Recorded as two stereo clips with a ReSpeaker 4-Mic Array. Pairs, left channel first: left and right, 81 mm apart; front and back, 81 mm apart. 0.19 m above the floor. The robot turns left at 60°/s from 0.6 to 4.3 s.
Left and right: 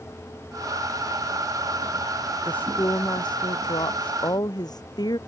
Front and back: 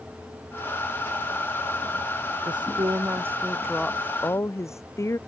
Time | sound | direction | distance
2.5 | a woman speaking | 165° left | ?